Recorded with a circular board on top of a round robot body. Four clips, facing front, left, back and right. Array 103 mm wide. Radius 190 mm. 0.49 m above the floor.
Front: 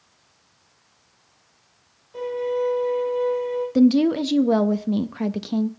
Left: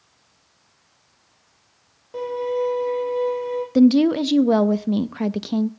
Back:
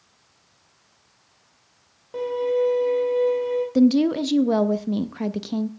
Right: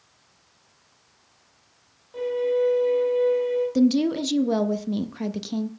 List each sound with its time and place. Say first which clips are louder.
2.1 s a violin: right 1 dB, back 2 dB; 150° left, 5.5 m
3.8 s a woman speaking: left 8 dB, front 1 dB; 80° left, 0.9 m